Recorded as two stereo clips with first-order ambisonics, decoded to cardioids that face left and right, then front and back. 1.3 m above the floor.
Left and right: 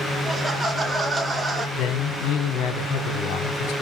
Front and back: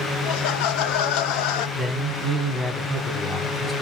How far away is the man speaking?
About 0.9 m.